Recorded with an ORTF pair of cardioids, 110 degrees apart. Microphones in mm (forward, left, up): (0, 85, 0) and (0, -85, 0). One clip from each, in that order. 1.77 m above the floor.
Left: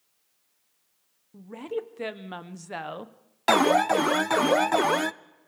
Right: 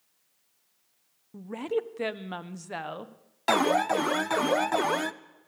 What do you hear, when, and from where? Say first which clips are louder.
1.3 s a woman speaking: right 3 dB; 25° right, 1.5 m; by 3.1 s 15° left, 1.5 m
3.5 s an alarm: left 3 dB; 15° left, 0.5 m